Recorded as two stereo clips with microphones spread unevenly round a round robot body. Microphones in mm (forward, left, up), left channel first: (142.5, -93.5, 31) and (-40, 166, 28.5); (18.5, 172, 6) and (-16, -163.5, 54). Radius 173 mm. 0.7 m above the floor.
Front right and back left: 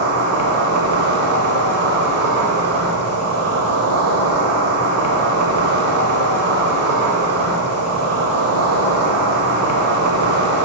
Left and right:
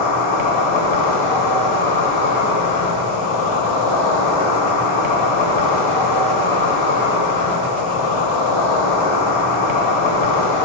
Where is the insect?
80° left, 1.2 m.